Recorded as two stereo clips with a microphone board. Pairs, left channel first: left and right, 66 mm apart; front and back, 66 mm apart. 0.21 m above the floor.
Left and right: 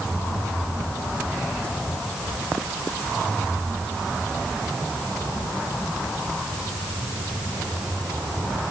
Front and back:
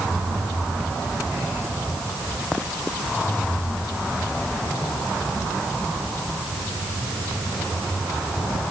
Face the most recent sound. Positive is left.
No sound to turn to.